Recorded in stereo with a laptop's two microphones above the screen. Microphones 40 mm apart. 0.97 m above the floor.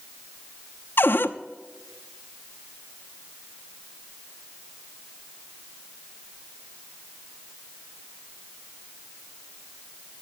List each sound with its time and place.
1.0 s a cupboard door: 60° left (ahead or behind), 0.6 m